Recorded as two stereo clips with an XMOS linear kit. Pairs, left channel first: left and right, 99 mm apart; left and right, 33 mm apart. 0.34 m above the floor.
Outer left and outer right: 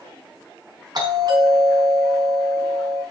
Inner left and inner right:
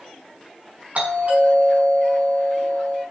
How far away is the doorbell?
About 4.5 m.